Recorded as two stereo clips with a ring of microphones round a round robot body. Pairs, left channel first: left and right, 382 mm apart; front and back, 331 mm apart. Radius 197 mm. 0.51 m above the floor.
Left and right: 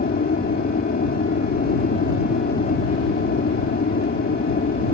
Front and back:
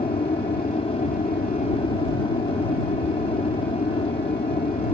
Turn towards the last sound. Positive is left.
turn(degrees=55)